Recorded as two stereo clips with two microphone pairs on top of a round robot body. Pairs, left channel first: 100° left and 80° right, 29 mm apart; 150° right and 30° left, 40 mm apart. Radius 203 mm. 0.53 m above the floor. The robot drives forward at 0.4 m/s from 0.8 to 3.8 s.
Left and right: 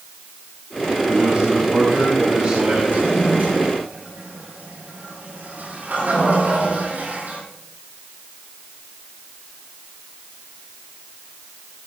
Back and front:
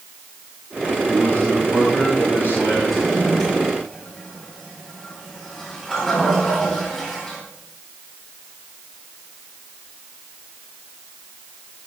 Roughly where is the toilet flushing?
Right.